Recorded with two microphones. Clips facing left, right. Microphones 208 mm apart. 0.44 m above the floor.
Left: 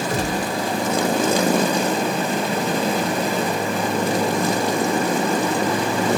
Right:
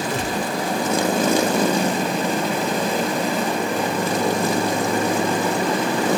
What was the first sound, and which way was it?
A gunshot, 40° left (ahead or behind).